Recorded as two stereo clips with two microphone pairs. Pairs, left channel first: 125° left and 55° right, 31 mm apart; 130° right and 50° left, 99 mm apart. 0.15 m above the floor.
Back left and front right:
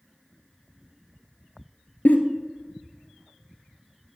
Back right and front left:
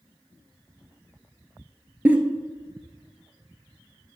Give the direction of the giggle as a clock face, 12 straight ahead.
8 o'clock.